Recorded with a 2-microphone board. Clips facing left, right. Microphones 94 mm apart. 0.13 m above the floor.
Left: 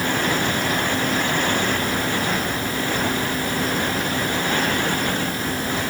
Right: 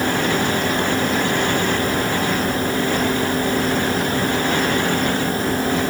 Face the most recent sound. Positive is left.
No sound to turn to.